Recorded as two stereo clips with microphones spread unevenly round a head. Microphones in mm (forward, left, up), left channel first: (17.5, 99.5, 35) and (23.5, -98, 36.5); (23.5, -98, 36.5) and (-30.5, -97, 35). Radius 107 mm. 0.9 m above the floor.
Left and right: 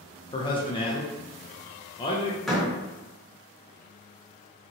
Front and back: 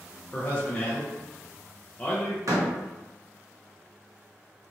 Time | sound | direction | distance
0.3 | a man speaking | 50° left | 0.5 m
2.5 | a door slam | straight behind | 0.8 m